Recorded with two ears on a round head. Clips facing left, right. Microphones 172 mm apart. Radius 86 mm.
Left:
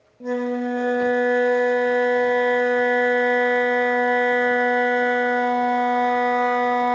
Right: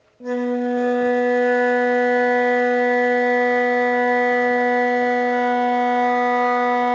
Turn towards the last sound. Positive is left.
turn(degrees=0)  # may be behind; listen again after turning